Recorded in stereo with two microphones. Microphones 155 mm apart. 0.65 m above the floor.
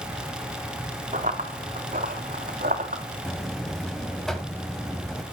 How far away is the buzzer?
About 1.6 m.